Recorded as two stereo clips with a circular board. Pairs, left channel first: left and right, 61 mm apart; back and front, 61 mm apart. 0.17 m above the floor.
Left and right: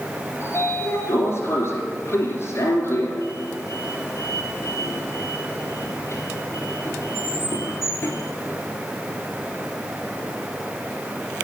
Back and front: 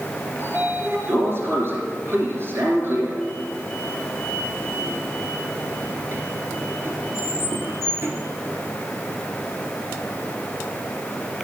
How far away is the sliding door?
About 2.5 m.